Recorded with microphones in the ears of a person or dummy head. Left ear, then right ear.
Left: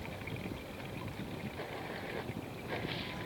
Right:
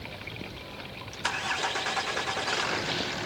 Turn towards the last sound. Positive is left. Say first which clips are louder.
# right 4 dB
turn(degrees=-35)  # may be behind; listen again after turning